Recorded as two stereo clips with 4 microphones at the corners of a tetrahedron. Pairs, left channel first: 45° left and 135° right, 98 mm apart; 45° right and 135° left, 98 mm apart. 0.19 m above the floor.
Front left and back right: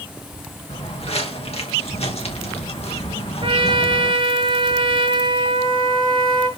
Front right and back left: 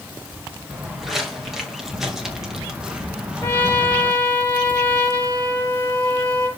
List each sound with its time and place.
0.7 s footsteps: 45° left, 4.5 m; by 4.1 s 55° left, 2.5 m
3.4 s a trumpet: 110° right, 5 m